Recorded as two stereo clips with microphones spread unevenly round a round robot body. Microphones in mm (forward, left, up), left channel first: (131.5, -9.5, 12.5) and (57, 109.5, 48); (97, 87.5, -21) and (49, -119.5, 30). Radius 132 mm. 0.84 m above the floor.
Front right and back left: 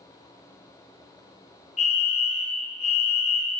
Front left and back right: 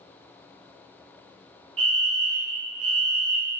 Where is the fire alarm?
85° right, 2.5 m.